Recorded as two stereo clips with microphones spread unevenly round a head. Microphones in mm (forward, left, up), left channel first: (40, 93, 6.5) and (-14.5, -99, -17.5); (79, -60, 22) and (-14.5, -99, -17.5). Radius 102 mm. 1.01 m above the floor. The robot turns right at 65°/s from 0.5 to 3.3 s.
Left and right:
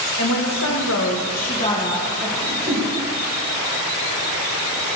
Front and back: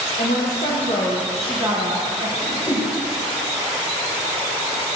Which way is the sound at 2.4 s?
60° right.